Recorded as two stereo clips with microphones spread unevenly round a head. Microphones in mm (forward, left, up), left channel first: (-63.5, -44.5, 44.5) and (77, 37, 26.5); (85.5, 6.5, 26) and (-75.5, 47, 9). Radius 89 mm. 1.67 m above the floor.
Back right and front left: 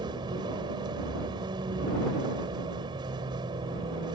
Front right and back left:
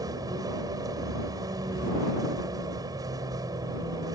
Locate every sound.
0.0 s a vehicle: 95° left